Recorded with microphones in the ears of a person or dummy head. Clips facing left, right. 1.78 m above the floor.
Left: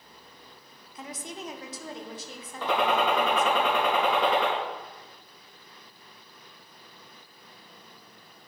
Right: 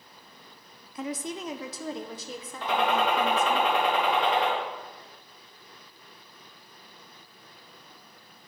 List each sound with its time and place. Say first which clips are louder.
0.9 s a woman speaking: right 6 dB; 50° right (ahead or behind), 0.7 m; by 3.6 s 80° right, 2 m
2.6 s a gunshot: left 1 dB; 85° left, 3.5 m